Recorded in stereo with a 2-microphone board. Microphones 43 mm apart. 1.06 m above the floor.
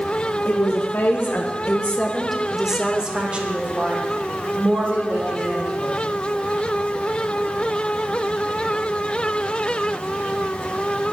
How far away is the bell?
No bell in this recording.